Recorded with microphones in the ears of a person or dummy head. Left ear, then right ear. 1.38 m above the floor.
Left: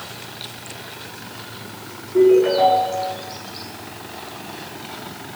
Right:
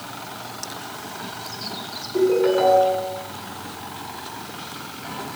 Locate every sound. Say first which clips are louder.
2.1 s a ringtone: left 5 dB; 5° right (ahead or behind), 9 m